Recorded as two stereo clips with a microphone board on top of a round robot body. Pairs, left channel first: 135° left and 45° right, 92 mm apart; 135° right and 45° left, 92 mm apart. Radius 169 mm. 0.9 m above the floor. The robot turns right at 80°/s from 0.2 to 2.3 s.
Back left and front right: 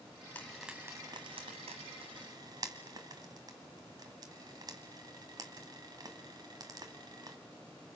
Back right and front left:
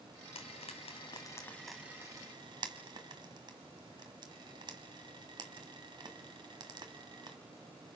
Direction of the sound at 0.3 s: 155° right.